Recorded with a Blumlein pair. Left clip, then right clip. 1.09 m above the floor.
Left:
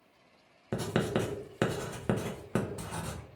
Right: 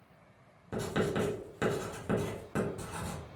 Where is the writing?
65° left, 0.9 m.